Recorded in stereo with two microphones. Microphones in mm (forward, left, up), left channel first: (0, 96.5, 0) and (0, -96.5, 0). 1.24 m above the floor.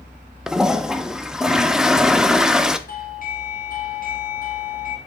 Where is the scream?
I don't hear a scream.